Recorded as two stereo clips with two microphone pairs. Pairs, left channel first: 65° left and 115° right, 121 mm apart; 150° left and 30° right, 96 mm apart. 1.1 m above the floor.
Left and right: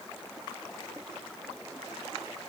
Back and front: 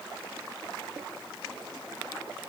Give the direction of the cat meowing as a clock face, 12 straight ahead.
I don't hear a cat meowing.